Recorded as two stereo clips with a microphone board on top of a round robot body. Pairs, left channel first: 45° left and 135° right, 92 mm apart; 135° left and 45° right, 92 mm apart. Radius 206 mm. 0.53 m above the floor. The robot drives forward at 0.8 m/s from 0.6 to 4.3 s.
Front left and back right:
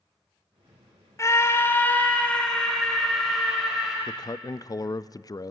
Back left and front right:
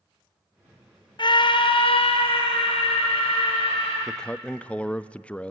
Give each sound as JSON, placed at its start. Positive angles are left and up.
{"t": 1.2, "sound": "a scream", "azimuth_deg": 100, "distance_m": 2.0}
{"t": 4.1, "sound": "a man speaking", "azimuth_deg": 45, "distance_m": 0.8}